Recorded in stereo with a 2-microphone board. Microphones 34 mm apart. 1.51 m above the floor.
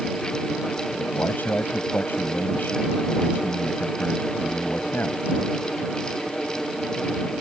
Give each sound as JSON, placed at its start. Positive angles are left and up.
{"t": 1.0, "sound": "a man speaking", "side_deg": 75}